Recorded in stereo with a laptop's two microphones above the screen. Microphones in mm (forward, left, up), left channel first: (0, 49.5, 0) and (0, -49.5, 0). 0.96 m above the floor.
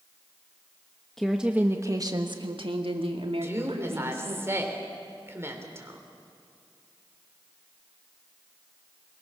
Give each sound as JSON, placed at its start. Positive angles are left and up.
{"t": 1.2, "sound": "a woman speaking", "side_deg": 5, "distance_m": 1.2}
{"t": 3.4, "sound": "a woman speaking", "side_deg": -25, "distance_m": 3.5}